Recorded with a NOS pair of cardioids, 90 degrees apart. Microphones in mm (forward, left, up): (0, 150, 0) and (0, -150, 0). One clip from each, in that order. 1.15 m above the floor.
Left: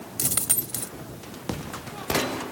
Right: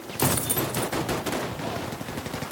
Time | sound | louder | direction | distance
0.2 | a dropped coin | right 4 dB | 35° left | ?